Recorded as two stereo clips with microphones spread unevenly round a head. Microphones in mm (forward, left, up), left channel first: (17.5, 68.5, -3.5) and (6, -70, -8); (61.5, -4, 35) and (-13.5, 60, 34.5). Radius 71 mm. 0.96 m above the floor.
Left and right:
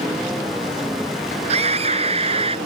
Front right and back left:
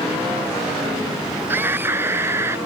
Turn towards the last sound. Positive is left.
turn(degrees=-150)